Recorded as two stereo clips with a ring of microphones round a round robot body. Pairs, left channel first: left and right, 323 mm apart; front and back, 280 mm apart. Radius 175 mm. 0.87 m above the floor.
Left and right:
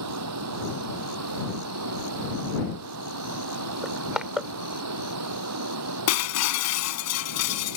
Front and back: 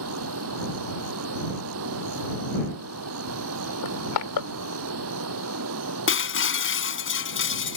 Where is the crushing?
Straight ahead.